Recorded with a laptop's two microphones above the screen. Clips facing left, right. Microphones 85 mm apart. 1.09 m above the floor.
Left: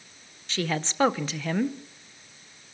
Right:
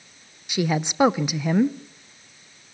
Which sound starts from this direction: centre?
A woman speaking, at 0.5 s.